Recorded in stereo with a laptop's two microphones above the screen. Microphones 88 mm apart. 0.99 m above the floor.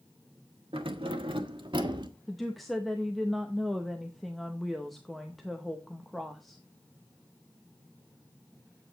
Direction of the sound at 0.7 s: 85° right.